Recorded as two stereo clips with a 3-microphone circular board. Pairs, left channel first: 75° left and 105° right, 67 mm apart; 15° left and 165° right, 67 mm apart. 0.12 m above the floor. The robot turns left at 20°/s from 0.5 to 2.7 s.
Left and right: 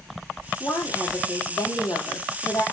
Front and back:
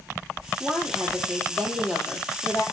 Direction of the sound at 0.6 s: 110° left.